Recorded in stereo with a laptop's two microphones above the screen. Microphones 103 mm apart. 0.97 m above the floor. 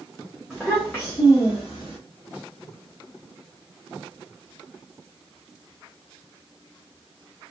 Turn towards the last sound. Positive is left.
turn(degrees=50)  # may be behind; listen again after turning